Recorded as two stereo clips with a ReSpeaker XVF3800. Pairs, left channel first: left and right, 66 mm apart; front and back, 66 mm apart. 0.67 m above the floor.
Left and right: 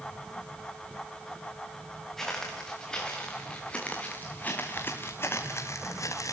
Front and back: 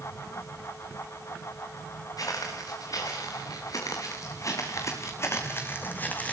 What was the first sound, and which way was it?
Footsteps, 5° left.